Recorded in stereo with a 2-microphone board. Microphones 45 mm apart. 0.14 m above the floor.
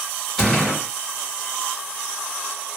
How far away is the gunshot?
About 2.5 m.